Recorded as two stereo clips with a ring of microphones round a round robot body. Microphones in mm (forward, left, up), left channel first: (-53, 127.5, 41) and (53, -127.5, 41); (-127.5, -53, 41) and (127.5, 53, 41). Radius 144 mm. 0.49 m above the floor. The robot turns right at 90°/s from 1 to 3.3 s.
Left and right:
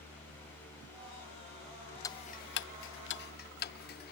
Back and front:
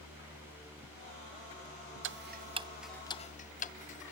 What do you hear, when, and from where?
2.0 s ticking: 40° left, 0.5 m; by 4.1 s 150° left, 0.5 m